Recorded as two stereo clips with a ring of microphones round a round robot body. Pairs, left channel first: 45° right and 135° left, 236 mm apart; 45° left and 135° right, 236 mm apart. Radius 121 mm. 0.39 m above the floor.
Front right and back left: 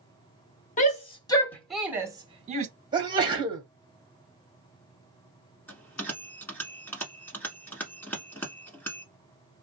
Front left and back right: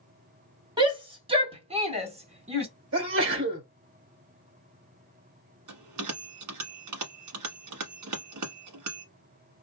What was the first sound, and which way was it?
A shout, 75° right.